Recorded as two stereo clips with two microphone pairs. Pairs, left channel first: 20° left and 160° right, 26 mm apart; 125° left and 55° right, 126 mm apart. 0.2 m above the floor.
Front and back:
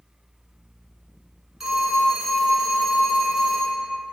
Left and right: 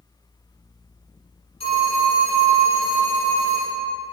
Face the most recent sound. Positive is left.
turn(degrees=125)